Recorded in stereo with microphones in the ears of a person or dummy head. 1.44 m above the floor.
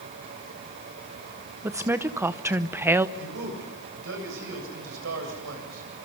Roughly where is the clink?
No clink in this recording.